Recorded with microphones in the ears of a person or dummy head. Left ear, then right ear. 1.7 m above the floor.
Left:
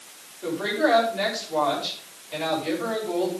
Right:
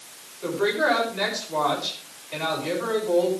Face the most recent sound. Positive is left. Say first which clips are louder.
# right 1 dB
turn(degrees=-5)  # may be behind; listen again after turning